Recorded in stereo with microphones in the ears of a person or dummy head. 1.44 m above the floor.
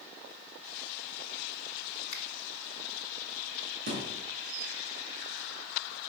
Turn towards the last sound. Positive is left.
turn(degrees=-45)  # may be behind; listen again after turning